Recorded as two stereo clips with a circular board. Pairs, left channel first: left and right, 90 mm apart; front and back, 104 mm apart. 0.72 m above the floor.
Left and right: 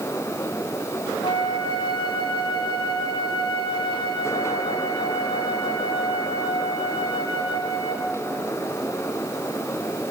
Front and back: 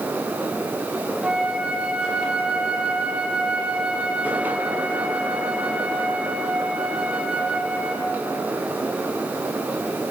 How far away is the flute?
About 0.7 m.